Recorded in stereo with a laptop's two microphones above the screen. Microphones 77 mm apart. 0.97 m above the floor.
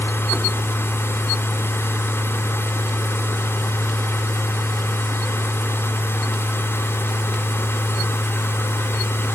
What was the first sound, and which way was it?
A machine running, 30° left (ahead or behind).